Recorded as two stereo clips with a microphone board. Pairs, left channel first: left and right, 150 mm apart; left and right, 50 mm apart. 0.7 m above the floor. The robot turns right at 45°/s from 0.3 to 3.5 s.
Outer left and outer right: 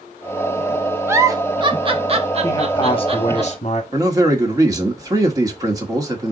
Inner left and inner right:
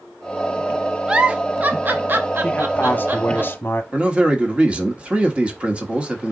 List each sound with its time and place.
1.1 s a giggle: 15° right (ahead or behind), 0.6 m; by 3.4 s 35° right (ahead or behind), 0.6 m
2.4 s a man speaking: 30° left, 1.0 m; by 3.8 s 75° left, 1.0 m
3.9 s a man speaking: 25° right (ahead or behind), 1.3 m